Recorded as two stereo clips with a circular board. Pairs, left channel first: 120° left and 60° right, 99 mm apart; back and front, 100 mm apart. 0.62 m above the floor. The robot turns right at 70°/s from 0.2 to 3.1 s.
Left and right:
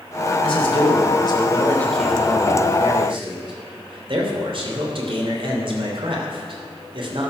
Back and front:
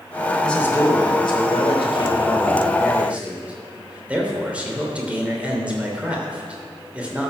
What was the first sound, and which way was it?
A man speaking, 95° left.